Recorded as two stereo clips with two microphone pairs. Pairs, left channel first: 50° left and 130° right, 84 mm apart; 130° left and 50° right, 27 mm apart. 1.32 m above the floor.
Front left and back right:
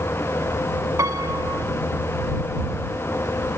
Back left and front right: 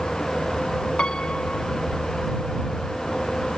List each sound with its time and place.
1.0 s a piano: straight behind